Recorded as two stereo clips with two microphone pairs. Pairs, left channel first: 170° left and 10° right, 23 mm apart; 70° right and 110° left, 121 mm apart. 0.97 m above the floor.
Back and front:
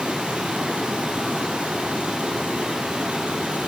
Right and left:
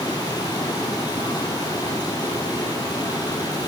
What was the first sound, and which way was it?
Running water, 15° right.